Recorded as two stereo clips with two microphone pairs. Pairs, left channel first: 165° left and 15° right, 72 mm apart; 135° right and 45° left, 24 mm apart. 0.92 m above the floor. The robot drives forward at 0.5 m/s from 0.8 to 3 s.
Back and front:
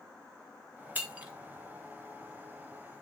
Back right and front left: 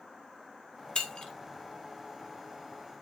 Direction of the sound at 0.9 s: 80° right.